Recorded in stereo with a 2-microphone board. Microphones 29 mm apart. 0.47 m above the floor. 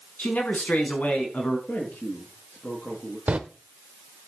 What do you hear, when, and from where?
0.2 s a man speaking: 70° left (ahead or behind), 5.5 m; by 1.6 s 65° left (ahead or behind), 4.5 m
1.7 s a man speaking: 85° left, 8 m
3.3 s a door slam: 55° right (ahead or behind), 1.3 m